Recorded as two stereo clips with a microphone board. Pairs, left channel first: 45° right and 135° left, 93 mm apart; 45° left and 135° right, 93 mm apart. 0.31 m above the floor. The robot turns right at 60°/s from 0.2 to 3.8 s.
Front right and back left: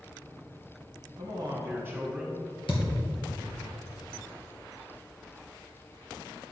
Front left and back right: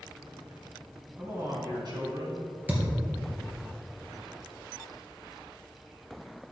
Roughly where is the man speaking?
Behind left.